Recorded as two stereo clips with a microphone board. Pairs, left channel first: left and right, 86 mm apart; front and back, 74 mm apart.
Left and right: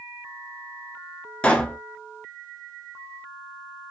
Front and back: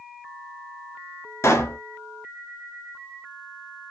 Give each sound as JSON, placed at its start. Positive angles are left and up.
{"t": 1.4, "sound": "a pop", "azimuth_deg": 20, "distance_m": 0.6}